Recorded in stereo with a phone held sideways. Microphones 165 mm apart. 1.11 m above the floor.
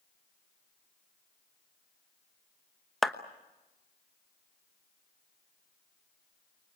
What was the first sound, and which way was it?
A clap, centre (ahead or behind).